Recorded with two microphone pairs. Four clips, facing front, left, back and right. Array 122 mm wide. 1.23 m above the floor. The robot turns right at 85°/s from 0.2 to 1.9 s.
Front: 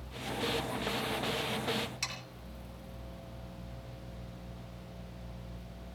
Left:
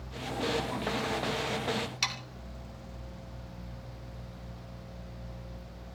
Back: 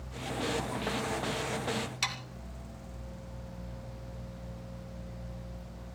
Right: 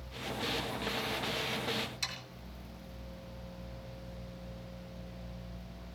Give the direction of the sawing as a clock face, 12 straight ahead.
8 o'clock.